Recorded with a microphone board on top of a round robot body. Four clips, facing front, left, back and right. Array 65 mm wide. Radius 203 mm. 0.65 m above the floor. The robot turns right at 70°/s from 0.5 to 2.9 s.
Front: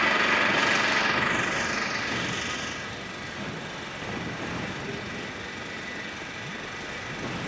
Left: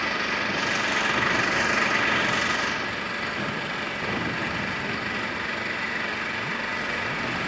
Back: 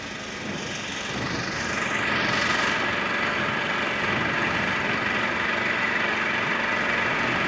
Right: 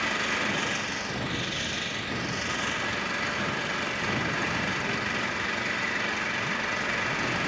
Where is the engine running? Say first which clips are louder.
Left 2 dB, front 11 dB; 10° left, 2 m; by 7.5 s 175° left, 2 m.